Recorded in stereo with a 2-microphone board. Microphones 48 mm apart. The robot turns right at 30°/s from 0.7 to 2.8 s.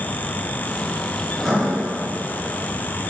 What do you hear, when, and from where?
1.3 s writing: 5° left (ahead or behind), 5 m; by 1.7 s 5° right (ahead or behind), 5 m